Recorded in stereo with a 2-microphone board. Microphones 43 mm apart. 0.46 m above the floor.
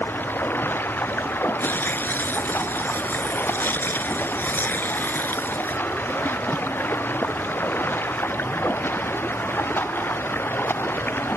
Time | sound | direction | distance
0.0 | running water | 60° left (ahead or behind) | ?
1.6 | tearing paper | 60° left (ahead or behind) | ?